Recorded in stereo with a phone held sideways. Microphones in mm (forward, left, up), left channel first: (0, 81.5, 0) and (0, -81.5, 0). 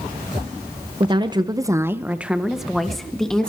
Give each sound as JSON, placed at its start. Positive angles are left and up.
{"t": 1.0, "sound": "a woman speaking", "side_deg": -30, "distance_m": 0.7}